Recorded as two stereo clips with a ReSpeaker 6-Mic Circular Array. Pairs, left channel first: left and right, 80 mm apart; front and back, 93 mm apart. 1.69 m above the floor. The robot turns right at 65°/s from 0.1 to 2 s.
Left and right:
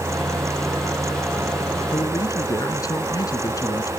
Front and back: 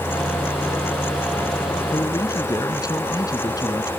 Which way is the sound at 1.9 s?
40° left.